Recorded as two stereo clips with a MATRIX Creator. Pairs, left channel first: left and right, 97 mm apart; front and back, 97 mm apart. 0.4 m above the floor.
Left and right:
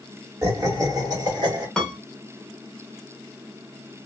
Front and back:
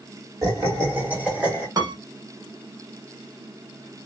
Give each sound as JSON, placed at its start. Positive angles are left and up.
{"t": 0.4, "sound": "laughter", "azimuth_deg": -140, "distance_m": 1.6}
{"t": 1.8, "sound": "a piano", "azimuth_deg": 165, "distance_m": 0.7}